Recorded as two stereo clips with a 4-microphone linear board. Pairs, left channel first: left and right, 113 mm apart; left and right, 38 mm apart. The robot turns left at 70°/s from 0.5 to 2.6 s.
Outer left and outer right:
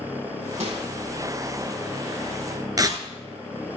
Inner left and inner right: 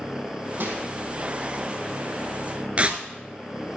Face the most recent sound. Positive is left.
turn(degrees=-35)  # may be behind; listen again after turning